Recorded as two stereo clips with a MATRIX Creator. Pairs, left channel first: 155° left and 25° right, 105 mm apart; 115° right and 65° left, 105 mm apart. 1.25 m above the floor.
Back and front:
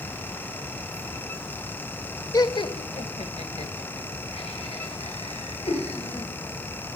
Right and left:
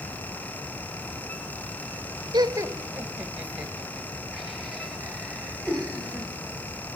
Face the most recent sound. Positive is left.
turn(degrees=160)